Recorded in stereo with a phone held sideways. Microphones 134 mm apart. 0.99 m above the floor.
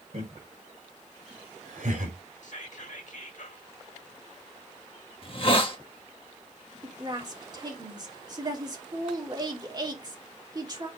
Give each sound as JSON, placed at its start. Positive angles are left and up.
{"t": 0.1, "sound": "laughter", "side_deg": -65, "distance_m": 3.0}
{"t": 2.4, "sound": "whispering", "side_deg": 65, "distance_m": 2.0}
{"t": 5.2, "sound": "a hiss", "side_deg": 45, "distance_m": 1.4}
{"t": 6.8, "sound": "a woman speaking", "side_deg": -30, "distance_m": 2.5}